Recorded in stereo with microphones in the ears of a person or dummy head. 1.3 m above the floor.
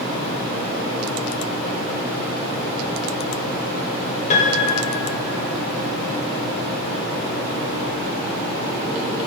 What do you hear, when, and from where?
4.3 s a piano: 50° left (ahead or behind), 1.8 m